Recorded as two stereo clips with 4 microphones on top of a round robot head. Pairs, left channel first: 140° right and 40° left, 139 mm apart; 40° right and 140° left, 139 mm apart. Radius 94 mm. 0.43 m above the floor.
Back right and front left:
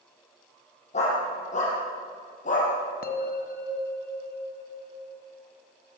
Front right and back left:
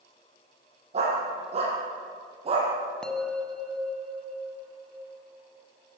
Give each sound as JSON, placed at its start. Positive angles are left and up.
{"t": 0.9, "sound": "a dog barking", "azimuth_deg": -175, "distance_m": 8.5}
{"t": 3.0, "sound": "a bell", "azimuth_deg": -125, "distance_m": 2.0}